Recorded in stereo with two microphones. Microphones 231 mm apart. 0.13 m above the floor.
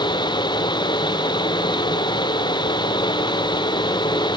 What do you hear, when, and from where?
Only background noise.